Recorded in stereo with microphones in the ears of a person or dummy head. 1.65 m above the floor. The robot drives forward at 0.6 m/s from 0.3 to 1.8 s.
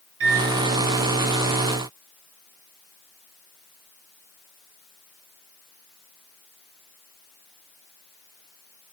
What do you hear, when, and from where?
0.2 s a microwave: 60° right (ahead or behind), 0.6 m; by 0.6 s 70° right (ahead or behind), 0.5 m